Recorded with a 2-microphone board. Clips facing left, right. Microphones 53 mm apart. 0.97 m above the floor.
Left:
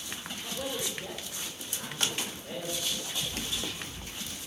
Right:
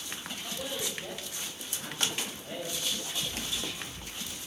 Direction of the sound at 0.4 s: 65° left (ahead or behind).